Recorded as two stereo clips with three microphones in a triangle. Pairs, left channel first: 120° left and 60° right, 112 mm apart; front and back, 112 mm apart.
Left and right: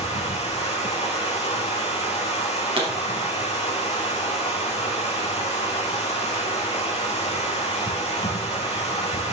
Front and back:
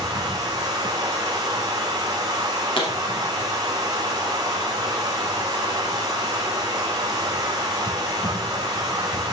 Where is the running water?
125° left, 3.5 m.